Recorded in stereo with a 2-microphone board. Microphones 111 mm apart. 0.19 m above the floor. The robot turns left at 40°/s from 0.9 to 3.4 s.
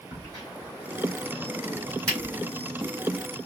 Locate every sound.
0.1 s a crack: 35° right (ahead or behind), 3 m; by 2.3 s 20° left (ahead or behind), 3 m